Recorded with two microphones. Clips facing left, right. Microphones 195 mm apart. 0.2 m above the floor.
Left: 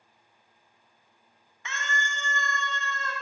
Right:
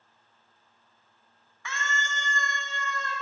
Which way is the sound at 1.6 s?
20° left (ahead or behind).